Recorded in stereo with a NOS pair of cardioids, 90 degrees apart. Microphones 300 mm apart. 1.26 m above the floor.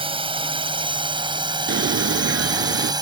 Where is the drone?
15° right.